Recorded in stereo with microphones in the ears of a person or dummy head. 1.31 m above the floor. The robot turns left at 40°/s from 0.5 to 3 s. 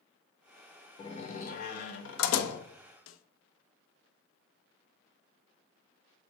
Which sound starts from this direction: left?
A snare drum, at 3.1 s.